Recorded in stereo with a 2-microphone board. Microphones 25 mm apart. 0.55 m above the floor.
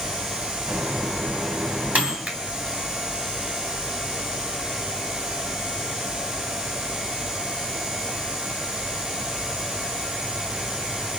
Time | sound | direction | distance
0.7 | a microwave | 80° right | 3 m
2.3 | a finger snap | 60° right (ahead or behind) | 2.5 m